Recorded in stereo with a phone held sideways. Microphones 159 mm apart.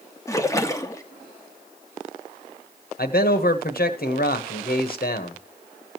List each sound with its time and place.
0.3 s a splash: 20° left (ahead or behind), 0.8 m
3.0 s a man speaking: 70° left (ahead or behind), 1.1 m